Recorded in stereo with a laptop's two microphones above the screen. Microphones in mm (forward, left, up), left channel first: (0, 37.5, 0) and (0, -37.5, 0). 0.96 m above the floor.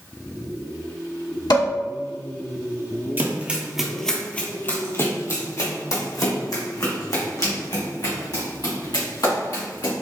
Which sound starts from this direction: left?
Dishes clattering, at 1.5 s.